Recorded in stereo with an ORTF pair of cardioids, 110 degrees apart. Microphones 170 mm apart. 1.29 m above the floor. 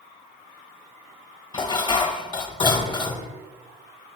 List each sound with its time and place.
1.5 s dishes clattering: 30° left, 1.2 m